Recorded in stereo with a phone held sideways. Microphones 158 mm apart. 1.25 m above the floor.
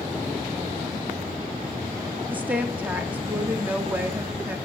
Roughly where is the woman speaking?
Centre.